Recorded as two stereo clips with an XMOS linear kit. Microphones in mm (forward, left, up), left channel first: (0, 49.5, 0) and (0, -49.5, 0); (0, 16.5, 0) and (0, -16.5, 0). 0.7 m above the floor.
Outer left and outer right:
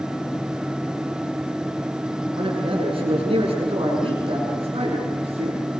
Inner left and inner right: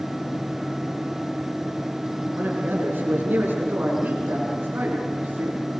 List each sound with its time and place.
2.3 s a man speaking: 65° right (ahead or behind), 8 m; by 5.6 s 85° right, 6.5 m